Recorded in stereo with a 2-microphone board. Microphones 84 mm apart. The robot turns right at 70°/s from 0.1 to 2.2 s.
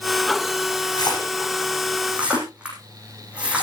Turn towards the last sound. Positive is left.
turn(degrees=-15)  # may be behind; listen again after turning